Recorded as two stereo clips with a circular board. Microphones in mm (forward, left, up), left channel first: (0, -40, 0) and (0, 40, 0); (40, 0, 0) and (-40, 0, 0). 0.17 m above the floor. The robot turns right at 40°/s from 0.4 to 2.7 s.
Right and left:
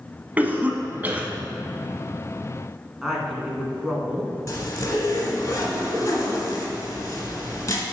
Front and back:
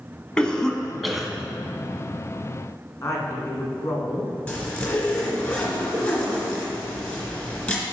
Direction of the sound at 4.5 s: 60° right.